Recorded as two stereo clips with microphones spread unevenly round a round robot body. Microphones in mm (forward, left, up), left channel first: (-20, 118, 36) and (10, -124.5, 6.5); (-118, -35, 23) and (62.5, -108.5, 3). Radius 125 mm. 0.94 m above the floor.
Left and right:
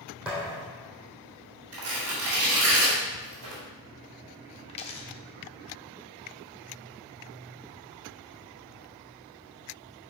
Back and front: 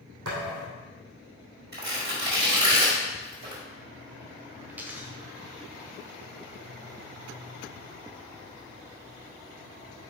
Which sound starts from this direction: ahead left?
A dropped coin, at 4.7 s.